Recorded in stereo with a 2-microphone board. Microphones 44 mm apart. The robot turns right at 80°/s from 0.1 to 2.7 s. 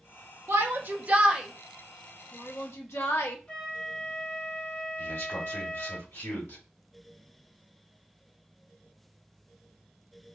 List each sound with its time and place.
0.5 s a shout: 70° right (ahead or behind), 1.0 m; by 3.4 s 70° left (ahead or behind), 1.0 m
3.5 s a flute: 30° left (ahead or behind), 1.3 m
5.0 s a man speaking: 80° left, 3 m